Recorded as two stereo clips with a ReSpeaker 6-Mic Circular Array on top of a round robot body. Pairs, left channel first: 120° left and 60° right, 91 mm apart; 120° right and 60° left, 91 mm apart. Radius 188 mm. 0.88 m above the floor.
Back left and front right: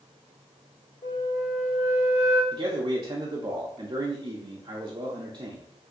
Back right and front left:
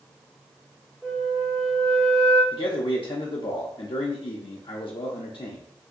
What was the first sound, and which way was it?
A flute, 140° left.